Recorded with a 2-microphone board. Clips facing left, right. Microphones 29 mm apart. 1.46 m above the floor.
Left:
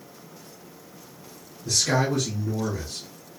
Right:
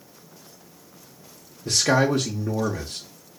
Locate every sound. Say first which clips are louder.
1.6 s a man speaking: right 3 dB; 55° right (ahead or behind), 0.6 m